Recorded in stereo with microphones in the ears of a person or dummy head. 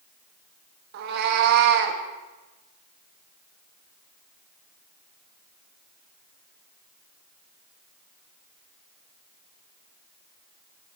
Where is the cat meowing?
60° right (ahead or behind), 0.8 m.